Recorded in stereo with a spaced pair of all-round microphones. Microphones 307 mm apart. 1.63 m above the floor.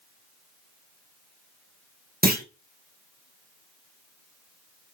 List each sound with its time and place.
2.2 s a clunk: 30° right (ahead or behind), 1.3 m